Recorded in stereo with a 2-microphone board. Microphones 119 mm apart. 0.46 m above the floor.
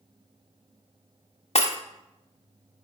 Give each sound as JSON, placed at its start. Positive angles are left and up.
{"t": 1.6, "sound": "breaking glass", "side_deg": 60, "distance_m": 0.7}